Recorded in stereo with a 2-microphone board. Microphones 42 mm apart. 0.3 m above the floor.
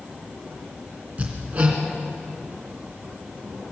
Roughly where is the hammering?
Right.